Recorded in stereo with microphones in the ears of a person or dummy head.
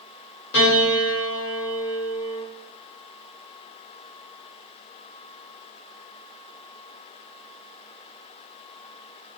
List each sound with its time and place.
0.5 s a piano: 70° left (ahead or behind), 1.3 m